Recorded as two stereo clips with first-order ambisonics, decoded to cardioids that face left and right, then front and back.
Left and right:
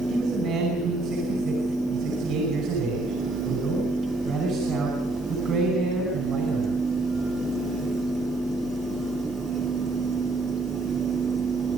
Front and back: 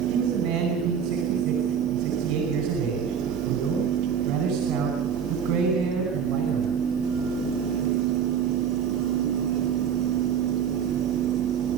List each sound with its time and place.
0.1 s a man speaking: 145° right, 5 m